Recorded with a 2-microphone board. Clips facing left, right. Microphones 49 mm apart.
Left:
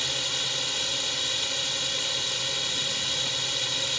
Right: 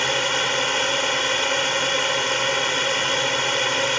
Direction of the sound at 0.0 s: 50° right (ahead or behind).